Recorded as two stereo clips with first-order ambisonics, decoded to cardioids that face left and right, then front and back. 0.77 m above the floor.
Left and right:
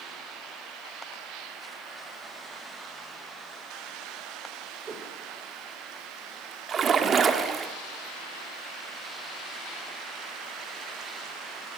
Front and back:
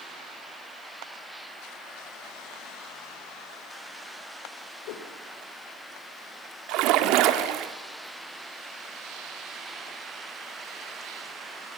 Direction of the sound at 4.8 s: 20° right.